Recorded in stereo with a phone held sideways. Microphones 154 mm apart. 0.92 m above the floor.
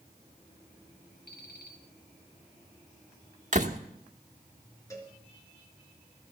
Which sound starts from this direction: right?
A door slam, at 3.5 s.